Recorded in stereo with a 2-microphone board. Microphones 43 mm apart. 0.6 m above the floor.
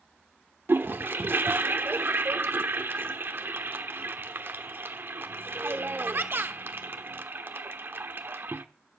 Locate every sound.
0.7 s a toilet flushing: 55° right (ahead or behind), 1.1 m